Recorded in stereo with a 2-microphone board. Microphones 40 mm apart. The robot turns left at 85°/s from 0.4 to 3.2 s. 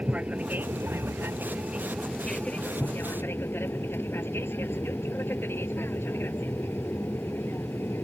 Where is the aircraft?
35° right; by 8.0 s 85° left.